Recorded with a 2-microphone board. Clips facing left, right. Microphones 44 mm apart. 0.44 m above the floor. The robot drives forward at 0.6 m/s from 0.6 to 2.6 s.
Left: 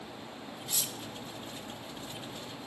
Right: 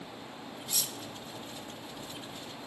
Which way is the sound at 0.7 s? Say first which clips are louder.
Even; 10° left (ahead or behind).